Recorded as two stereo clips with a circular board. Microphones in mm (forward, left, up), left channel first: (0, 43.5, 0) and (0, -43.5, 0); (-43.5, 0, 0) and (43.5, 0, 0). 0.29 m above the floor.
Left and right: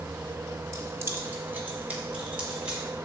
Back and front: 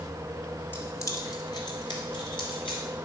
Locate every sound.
0.7 s keys jangling: 125° right, 0.9 m; by 2.8 s 170° right, 2.5 m